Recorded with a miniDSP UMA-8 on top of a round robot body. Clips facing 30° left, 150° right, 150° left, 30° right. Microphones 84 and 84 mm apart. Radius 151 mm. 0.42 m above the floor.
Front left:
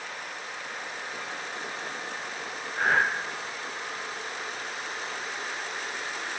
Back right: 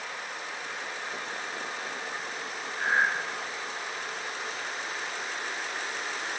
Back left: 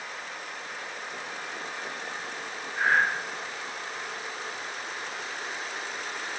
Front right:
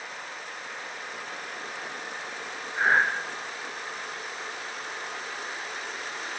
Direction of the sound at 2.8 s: 35° left.